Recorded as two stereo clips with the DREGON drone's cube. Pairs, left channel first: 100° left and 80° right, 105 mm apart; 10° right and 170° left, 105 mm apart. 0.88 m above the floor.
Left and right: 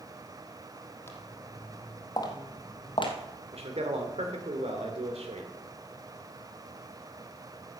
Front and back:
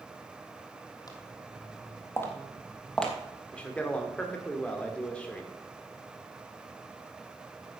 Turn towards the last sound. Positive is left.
turn(degrees=-90)